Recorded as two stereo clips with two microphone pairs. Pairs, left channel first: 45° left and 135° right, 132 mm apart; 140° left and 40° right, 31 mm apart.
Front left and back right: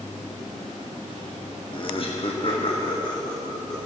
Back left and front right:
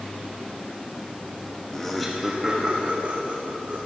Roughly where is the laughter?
Left.